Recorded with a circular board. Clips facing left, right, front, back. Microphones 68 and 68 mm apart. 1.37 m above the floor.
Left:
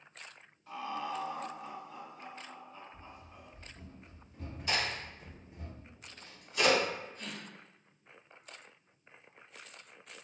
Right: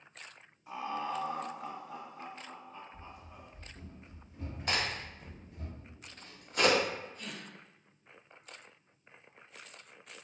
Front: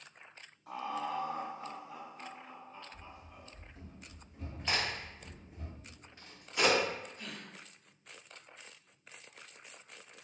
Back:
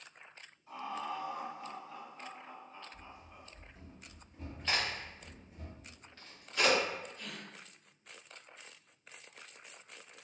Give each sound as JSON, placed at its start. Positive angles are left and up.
{"t": 0.7, "sound": "laughter", "azimuth_deg": -15, "distance_m": 0.6}
{"t": 2.9, "sound": "running footsteps", "azimuth_deg": -95, "distance_m": 1.9}
{"t": 4.7, "sound": "a crack", "azimuth_deg": -75, "distance_m": 1.2}
{"t": 7.2, "sound": "a gasp", "azimuth_deg": 55, "distance_m": 1.0}